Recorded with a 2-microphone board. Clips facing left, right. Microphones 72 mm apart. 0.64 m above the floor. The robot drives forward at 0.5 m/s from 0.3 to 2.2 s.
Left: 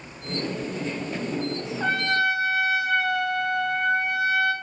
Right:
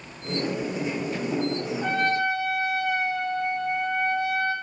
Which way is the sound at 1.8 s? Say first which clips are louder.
Left 2 dB; 75° left (ahead or behind).